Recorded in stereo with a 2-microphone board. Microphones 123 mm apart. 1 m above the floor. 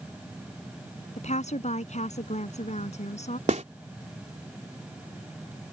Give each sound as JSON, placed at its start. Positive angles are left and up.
{"t": 1.2, "sound": "a woman speaking", "side_deg": 70}
{"t": 3.5, "sound": "a snare drum", "side_deg": -75}